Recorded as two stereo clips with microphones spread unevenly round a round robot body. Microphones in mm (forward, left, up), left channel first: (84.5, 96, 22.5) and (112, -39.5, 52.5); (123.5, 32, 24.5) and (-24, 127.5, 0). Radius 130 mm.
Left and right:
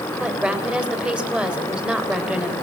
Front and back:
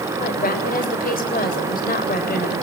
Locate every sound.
0.2 s a woman speaking: 5° left, 4.5 m